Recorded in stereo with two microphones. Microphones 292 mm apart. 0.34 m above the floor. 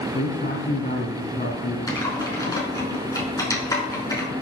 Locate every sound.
0.1 s a man speaking: 30° left (ahead or behind), 3.5 m
1.9 s typing on a keyboard: 10° left (ahead or behind), 4.5 m